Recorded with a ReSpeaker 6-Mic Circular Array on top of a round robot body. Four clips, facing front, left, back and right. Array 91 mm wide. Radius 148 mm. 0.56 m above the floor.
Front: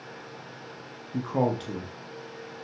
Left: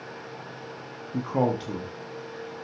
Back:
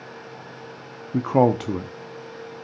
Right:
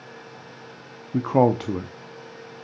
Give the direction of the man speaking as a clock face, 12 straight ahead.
5 o'clock.